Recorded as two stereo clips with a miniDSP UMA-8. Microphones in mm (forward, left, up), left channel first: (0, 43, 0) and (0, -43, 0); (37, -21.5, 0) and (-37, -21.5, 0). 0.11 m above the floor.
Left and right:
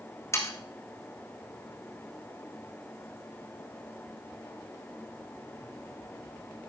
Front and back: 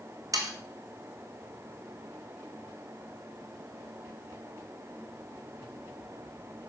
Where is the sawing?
145° left, 1.8 m.